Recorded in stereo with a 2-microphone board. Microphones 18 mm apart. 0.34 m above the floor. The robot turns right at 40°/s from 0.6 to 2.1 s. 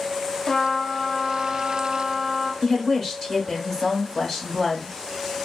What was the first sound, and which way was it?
A trumpet, 145° left.